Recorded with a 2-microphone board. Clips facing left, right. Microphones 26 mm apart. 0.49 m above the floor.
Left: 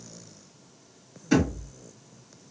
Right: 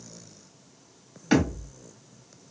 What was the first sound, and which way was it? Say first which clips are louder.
A thud: even; 55° right (ahead or behind).